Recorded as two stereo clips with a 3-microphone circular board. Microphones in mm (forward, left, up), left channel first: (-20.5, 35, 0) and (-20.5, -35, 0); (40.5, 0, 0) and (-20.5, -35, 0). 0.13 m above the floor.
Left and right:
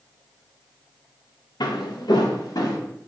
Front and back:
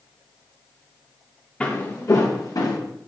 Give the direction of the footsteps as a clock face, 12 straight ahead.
9 o'clock.